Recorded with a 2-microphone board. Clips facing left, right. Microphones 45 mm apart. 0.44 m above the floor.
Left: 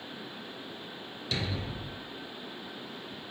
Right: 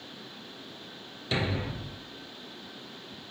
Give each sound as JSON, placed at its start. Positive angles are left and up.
{"t": 1.3, "sound": "a thud", "side_deg": -25, "distance_m": 0.9}